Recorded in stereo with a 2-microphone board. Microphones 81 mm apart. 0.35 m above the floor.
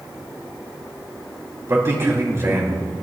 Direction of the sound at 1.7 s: 35° right (ahead or behind).